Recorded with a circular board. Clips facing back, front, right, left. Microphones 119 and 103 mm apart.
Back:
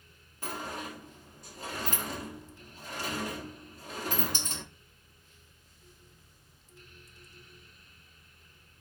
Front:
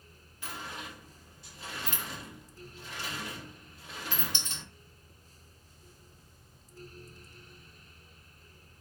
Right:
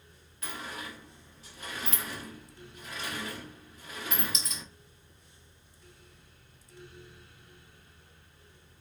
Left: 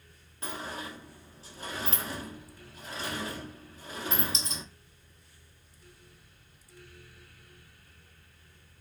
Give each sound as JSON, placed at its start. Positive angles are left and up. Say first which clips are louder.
{"t": 0.4, "sound": "a sliding door", "louder": "back 5 dB, left 2 dB", "azimuth_deg": 145, "distance_m": 0.8}